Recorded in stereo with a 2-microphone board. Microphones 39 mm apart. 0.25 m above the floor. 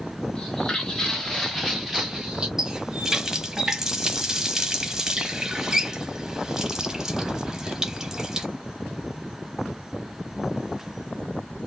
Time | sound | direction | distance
0.3 | footsteps | 20° left (ahead or behind) | 1.9 m
2.6 | a running tap | 15° right (ahead or behind) | 1.0 m